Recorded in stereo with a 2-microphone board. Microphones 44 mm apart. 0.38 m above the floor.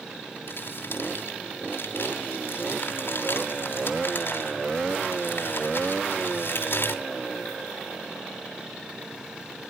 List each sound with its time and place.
0.5 s crumpling: 65° left (ahead or behind), 2 m